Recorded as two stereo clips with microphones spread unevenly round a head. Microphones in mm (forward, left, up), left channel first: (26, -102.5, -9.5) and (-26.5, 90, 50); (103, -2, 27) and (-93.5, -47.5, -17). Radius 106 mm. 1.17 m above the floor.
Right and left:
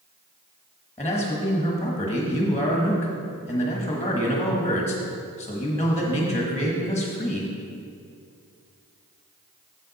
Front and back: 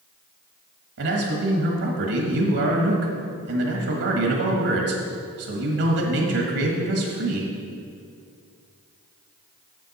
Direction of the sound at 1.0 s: 150° right.